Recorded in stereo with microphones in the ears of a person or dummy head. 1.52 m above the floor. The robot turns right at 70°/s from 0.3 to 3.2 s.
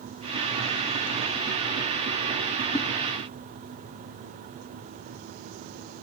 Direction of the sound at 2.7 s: 15° left (ahead or behind).